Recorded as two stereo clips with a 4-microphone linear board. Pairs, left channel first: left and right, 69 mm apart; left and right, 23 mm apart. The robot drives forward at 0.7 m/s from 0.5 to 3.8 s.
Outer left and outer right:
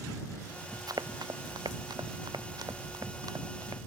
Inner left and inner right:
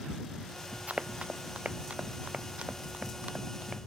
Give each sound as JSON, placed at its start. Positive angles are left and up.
{"t": 0.9, "sound": "running footsteps", "side_deg": -70}